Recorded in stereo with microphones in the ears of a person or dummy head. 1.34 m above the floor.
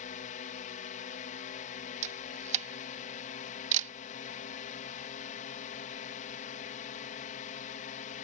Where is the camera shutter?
40° right (ahead or behind).